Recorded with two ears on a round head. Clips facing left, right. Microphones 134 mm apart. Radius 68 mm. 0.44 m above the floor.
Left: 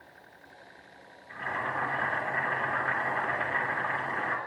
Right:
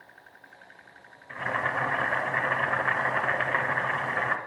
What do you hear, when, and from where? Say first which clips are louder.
1.3 s boiling: right 3 dB; 75° right (ahead or behind), 0.6 m